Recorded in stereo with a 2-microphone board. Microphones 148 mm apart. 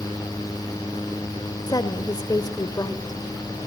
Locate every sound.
1.7 s a woman speaking: 25° left (ahead or behind), 1.3 m